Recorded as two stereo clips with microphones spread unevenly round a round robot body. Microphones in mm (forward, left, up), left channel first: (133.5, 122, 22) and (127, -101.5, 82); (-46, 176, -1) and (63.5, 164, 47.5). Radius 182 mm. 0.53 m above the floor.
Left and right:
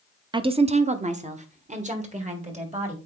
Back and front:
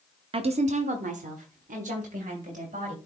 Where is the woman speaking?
10° right, 0.7 m; by 3.0 s 30° right, 2.5 m.